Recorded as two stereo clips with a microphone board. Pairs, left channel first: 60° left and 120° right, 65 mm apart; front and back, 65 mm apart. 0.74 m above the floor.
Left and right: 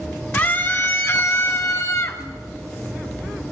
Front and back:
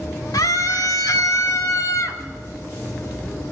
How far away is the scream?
About 2 m.